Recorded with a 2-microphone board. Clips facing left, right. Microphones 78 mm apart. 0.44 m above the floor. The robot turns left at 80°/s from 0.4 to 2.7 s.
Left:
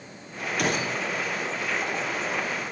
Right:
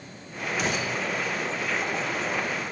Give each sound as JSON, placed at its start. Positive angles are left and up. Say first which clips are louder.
{"t": 0.6, "sound": "a gunshot", "louder": "left 2 dB", "azimuth_deg": 60, "distance_m": 2.0}